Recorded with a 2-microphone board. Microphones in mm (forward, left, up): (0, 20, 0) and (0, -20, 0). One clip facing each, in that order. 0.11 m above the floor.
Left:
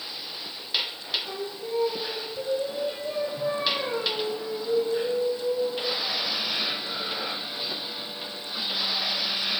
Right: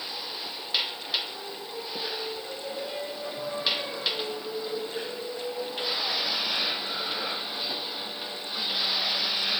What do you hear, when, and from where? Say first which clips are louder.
1.2 s singing: left 5 dB; 50° left (ahead or behind), 3 m